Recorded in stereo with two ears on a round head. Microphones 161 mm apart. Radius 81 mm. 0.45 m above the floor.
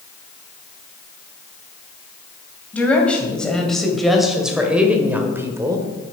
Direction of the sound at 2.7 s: 10° left (ahead or behind).